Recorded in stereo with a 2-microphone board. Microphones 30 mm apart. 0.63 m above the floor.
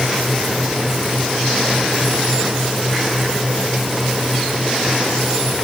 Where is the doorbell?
I don't hear a doorbell.